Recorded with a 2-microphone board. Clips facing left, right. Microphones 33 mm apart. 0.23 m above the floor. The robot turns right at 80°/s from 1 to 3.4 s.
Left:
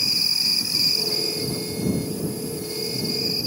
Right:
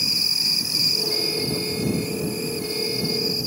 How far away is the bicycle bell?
I don't hear a bicycle bell.